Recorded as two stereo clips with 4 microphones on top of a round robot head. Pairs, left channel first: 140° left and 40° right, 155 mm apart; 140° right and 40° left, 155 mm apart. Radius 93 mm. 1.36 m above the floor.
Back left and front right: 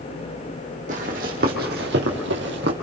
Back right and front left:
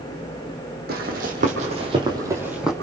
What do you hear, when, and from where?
0.9 s running footsteps: 5° left, 3 m; by 2.7 s 50° right, 2 m